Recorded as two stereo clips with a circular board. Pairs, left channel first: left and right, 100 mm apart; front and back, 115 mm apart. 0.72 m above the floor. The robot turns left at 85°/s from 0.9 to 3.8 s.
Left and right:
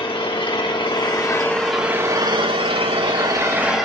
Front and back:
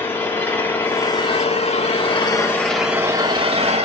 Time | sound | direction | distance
0.0 | an engine running | 70° left | 1.4 m